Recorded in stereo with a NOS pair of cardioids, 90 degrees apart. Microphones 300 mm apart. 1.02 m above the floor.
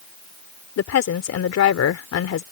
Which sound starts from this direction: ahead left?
A woman speaking, at 0.8 s.